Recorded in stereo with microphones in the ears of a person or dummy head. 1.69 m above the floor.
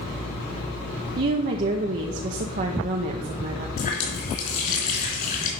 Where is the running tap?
45° left (ahead or behind), 3.5 m.